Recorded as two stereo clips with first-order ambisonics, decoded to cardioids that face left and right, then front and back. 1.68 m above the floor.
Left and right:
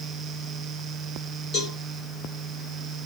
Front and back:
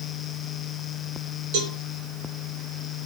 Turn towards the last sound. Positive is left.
turn(degrees=165)